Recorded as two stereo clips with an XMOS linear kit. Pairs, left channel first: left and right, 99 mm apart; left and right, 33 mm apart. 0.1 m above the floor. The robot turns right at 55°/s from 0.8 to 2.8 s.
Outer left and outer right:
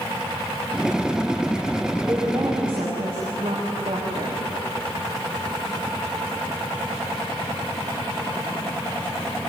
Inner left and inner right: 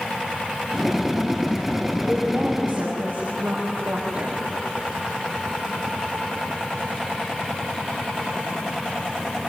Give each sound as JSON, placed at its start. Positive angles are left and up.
{"t": 2.0, "sound": "a woman speaking", "azimuth_deg": -165, "distance_m": 6.0}